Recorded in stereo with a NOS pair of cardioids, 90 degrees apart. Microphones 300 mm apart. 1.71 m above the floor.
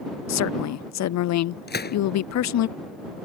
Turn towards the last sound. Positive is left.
turn(degrees=30)